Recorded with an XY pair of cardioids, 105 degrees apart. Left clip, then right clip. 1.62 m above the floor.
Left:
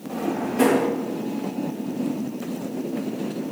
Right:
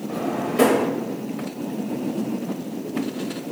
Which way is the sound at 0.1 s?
55° right.